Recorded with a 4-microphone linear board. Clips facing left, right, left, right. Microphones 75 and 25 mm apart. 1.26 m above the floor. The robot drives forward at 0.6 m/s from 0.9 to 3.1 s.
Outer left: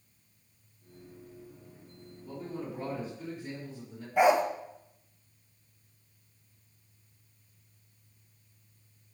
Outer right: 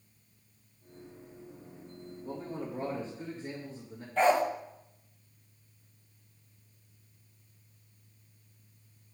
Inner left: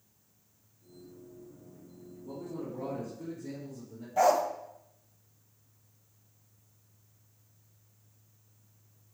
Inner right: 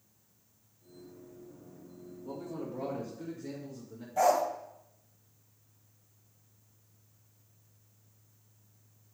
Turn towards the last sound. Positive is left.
turn(degrees=10)  # may be behind; listen again after turning